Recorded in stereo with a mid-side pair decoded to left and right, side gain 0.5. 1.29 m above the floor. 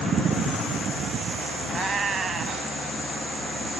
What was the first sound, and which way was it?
A cat meowing, 40° right.